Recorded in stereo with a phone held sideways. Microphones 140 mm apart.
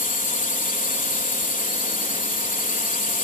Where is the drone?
70° left (ahead or behind).